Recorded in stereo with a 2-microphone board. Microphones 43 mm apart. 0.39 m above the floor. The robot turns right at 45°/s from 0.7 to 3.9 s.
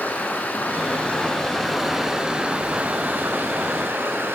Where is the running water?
125° left, 4 m; by 4.3 s 90° right, 4 m.